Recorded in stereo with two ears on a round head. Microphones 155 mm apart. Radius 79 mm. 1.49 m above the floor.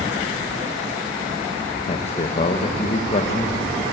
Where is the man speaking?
40° left (ahead or behind), 1.7 m.